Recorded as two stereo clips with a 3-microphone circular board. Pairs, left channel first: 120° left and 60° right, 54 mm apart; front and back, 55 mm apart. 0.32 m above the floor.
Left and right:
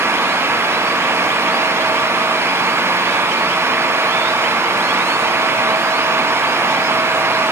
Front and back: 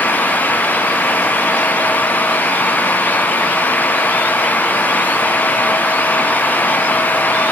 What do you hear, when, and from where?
Only background noise.